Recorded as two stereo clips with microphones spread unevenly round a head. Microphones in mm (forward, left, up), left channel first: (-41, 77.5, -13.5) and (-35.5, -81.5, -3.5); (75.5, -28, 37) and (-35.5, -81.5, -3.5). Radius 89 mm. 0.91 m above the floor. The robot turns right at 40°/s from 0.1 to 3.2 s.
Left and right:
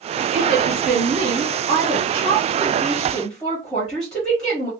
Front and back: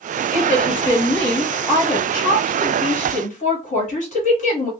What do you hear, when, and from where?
0.3 s a woman speaking: 85° right, 1.1 m; by 4.7 s 30° left, 1.1 m